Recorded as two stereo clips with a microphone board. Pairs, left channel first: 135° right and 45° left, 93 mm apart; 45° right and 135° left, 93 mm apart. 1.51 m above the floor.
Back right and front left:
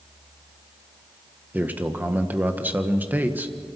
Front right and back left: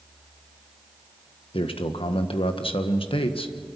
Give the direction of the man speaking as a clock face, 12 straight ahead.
1 o'clock.